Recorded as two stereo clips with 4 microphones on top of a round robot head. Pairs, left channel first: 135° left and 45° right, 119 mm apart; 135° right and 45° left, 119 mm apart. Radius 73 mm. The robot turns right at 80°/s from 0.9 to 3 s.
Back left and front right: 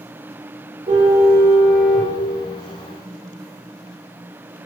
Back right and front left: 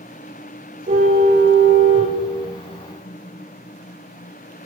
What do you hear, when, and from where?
0.9 s a car horn: 10° left, 9.5 m; by 2.1 s 110° left, 9.5 m